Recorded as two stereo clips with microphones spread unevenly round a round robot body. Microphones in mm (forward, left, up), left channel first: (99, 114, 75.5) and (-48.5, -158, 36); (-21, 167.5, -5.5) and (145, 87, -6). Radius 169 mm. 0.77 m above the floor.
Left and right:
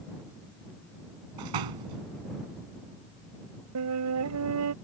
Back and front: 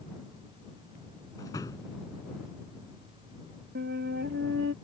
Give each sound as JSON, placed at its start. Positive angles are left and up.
{"t": 1.4, "sound": "a door slam", "azimuth_deg": -125}
{"t": 3.8, "sound": "a flute", "azimuth_deg": -80}